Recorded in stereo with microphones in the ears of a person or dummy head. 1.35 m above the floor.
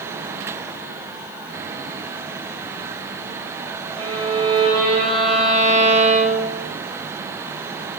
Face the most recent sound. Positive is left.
turn(degrees=-85)